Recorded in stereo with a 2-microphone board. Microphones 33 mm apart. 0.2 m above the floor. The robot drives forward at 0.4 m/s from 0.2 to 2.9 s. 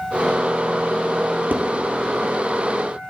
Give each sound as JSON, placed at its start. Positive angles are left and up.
{"t": 1.5, "sound": "dishes clattering", "side_deg": -60, "distance_m": 3.5}